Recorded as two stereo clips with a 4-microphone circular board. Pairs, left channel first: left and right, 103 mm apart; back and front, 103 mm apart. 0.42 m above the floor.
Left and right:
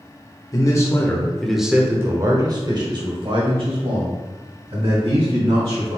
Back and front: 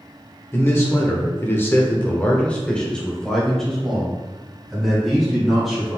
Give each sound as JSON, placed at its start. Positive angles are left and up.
{"t": 0.5, "sound": "a man speaking", "azimuth_deg": 120, "distance_m": 1.0}